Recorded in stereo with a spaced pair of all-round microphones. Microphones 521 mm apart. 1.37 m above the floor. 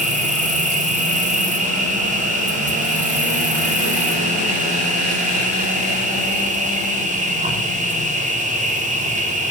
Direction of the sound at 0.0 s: 15° right (ahead or behind).